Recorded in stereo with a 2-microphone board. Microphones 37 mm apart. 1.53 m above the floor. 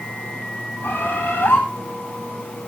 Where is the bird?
75° left (ahead or behind), 7 m.